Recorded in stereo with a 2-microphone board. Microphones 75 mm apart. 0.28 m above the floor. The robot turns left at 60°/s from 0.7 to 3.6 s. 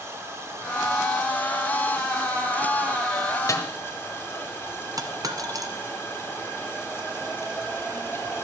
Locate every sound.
0.0 s running water: 35° right, 3.5 m; by 8.4 s 155° left, 3.5 m
3.5 s a snare drum: 45° left (ahead or behind), 1.6 m; by 3.7 s 40° left (ahead or behind), 1.6 m
5.0 s a dropped coin: 50° right (ahead or behind), 1.1 m